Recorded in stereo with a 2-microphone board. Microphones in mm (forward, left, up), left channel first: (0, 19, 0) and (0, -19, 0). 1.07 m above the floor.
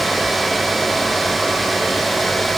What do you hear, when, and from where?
Only background noise.